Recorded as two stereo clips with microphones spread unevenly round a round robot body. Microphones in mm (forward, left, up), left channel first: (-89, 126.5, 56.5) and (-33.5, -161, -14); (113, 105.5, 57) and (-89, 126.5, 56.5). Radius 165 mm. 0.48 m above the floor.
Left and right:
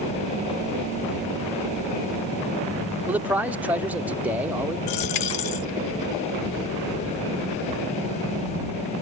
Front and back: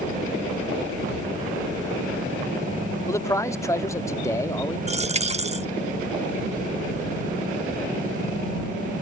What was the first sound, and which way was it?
A man speaking, 55° right.